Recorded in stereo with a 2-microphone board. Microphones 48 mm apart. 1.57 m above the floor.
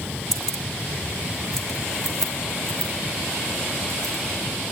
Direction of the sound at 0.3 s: 10° left (ahead or behind).